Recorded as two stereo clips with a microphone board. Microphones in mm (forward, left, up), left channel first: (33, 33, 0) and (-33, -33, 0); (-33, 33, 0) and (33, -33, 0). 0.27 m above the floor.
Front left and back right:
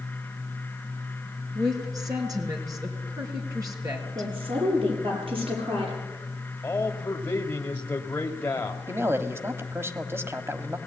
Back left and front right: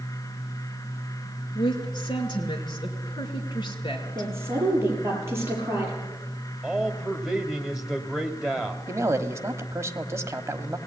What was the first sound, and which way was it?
A woman speaking, 175° left.